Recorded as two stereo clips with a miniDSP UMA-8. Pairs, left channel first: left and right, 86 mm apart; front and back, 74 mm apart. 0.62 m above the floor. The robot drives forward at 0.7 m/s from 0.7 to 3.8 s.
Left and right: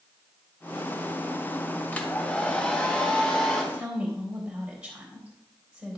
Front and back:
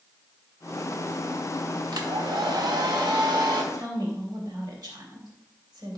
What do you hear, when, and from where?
1.9 s a hair dryer: 160° left, 1.1 m; by 3.6 s 170° left, 2 m
3.7 s a woman speaking: 165° right, 2 m